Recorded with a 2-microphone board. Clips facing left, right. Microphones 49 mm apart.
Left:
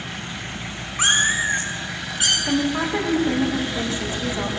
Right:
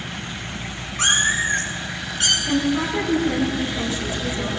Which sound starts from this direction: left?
A woman speaking, at 2.5 s.